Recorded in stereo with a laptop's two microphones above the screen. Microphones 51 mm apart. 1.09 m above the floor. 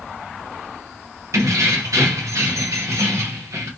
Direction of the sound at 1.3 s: 85° right.